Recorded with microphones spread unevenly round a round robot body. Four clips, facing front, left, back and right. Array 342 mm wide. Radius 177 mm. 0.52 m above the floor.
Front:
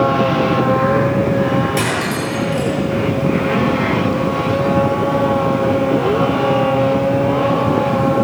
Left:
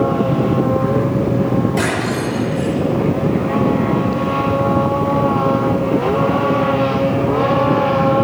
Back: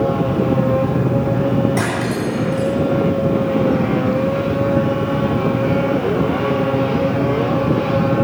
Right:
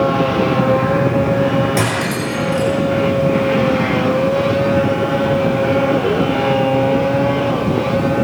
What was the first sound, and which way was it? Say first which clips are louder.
Cutlery clinking: even, front 1 dB; 115° right.